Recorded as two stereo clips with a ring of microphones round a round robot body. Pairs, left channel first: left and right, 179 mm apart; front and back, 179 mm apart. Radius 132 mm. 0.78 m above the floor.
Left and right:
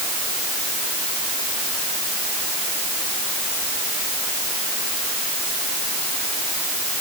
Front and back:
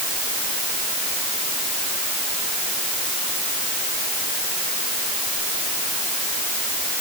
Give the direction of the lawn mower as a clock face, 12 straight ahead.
No lawn mower in this recording.